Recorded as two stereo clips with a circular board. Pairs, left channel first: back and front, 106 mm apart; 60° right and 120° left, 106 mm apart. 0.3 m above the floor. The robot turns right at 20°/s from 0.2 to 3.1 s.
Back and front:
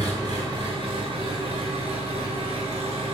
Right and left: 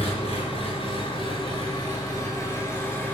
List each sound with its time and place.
0.0 s an engine running: 45° right, 1.8 m; by 3.1 s 15° left, 1.8 m